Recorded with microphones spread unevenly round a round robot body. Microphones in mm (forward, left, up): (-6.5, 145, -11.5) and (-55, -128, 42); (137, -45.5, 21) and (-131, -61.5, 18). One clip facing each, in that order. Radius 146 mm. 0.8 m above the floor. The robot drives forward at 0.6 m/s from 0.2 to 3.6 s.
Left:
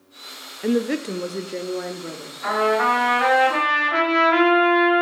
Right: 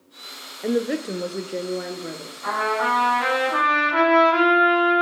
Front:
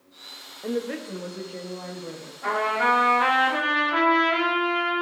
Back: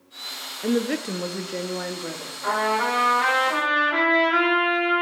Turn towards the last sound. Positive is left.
turn(degrees=110)